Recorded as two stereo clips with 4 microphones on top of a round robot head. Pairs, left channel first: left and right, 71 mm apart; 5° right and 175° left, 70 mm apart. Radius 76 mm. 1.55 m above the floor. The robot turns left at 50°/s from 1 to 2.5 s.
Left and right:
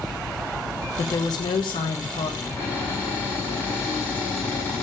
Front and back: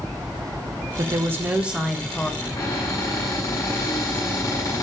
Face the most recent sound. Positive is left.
turn(degrees=30)